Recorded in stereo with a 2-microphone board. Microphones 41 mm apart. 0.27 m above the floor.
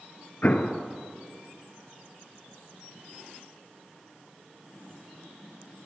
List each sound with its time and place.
0.4 s an explosion: 45° left (ahead or behind), 0.6 m